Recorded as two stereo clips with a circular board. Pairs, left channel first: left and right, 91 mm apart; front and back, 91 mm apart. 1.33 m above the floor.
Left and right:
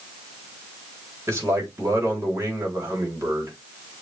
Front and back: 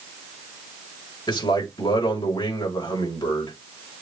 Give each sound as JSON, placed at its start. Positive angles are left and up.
{"t": 1.3, "sound": "a man speaking", "azimuth_deg": -30, "distance_m": 4.0}